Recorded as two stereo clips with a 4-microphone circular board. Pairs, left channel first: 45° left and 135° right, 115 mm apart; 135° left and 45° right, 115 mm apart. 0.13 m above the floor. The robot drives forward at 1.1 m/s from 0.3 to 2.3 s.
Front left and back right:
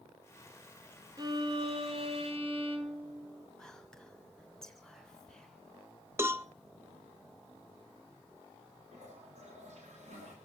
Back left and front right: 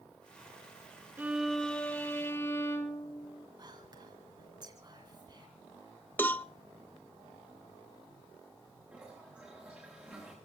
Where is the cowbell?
170° right, 0.6 m.